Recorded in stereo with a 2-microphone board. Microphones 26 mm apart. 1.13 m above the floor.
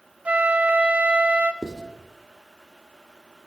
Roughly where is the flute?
Right.